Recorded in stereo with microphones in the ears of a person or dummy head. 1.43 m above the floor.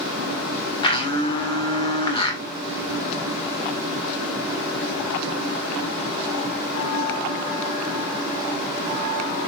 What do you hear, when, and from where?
0.8 s a blender: 30° left (ahead or behind), 2.0 m